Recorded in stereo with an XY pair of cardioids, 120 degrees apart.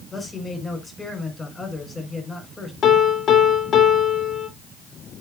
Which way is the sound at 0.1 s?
20° left.